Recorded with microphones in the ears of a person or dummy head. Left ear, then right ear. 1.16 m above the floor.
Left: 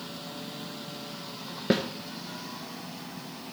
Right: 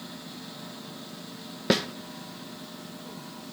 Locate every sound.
1.7 s a snare drum: 30° right (ahead or behind), 0.5 m